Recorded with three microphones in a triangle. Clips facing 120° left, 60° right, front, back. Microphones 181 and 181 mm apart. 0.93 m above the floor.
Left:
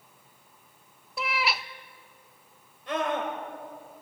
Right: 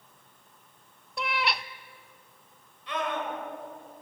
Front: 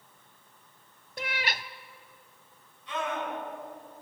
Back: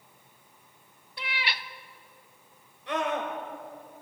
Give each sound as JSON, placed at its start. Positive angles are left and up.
{"t": 1.2, "sound": "a cat meowing", "azimuth_deg": 30, "distance_m": 0.5}
{"t": 2.9, "sound": "a scream", "azimuth_deg": 160, "distance_m": 3.5}